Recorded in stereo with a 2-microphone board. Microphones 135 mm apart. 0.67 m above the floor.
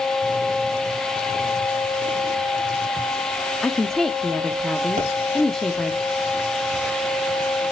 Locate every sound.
3.6 s a woman speaking: 5° left (ahead or behind), 0.8 m
5.0 s a pop: 60° right (ahead or behind), 4.5 m